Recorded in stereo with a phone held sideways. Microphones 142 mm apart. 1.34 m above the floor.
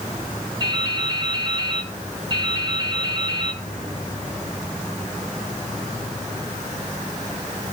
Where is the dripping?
35° right (ahead or behind), 4 m.